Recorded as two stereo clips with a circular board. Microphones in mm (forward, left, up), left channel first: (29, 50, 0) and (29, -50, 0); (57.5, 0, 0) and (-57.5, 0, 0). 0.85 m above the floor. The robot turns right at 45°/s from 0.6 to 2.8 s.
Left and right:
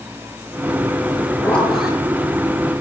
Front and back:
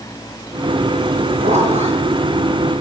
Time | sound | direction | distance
1.4 | a zipper | 165° left | 7.5 m